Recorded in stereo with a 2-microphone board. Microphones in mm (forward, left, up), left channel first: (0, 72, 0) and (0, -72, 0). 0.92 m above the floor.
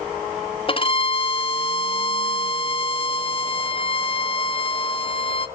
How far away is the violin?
About 0.6 m.